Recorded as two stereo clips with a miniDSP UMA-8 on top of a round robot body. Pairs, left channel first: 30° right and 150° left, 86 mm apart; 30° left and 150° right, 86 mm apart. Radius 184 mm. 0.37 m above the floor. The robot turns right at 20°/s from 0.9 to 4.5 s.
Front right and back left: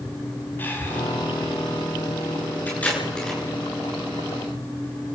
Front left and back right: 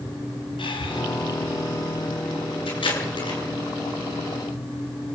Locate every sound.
0.6 s breathing: 35° left, 5 m; by 1.0 s 40° left, 5 m
2.7 s tape being pulled: 40° left, 9.5 m; by 3.4 s 55° left, 9.5 m